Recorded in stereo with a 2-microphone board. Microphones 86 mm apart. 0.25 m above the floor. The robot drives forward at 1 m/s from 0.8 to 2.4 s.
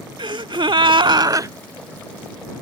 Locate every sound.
0.2 s a gasp: 75° right (ahead or behind); by 1.5 s 40° right (ahead or behind)